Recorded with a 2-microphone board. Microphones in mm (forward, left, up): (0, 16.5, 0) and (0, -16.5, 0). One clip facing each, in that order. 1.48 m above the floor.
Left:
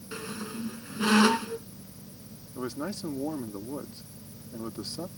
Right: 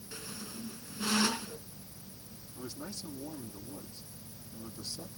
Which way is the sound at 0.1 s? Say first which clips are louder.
Left 8 dB; 45° left (ahead or behind).